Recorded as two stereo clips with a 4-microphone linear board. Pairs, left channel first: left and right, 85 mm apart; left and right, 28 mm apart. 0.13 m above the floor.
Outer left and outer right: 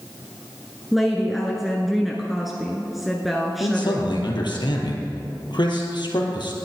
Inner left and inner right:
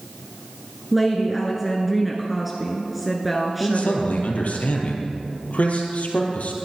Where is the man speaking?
65° left (ahead or behind), 3 m.